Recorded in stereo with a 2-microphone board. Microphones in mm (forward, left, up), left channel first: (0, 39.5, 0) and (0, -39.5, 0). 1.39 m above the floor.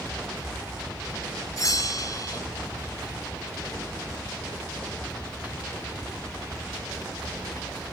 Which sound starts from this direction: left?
A bell, at 1.6 s.